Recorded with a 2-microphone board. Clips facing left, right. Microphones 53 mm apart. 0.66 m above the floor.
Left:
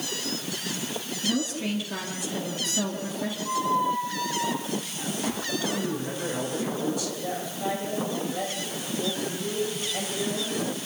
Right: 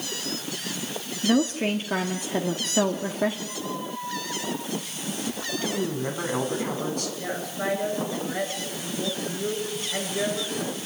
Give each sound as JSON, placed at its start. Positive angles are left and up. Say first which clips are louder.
{"t": 1.2, "sound": "a woman speaking", "louder": "right 6 dB", "side_deg": -45, "distance_m": 1.5}
{"t": 3.5, "sound": "a squeak", "louder": "left 8 dB", "side_deg": 75, "distance_m": 2.5}
{"t": 5.6, "sound": "a man speaking", "louder": "right 4 dB", "side_deg": -50, "distance_m": 6.0}
{"t": 7.2, "sound": "a woman speaking", "louder": "right 1 dB", "side_deg": -55, "distance_m": 8.5}